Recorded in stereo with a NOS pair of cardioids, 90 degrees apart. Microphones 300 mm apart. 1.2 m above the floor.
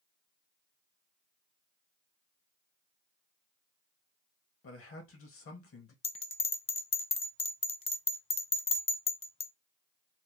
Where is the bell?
20° left, 0.6 m.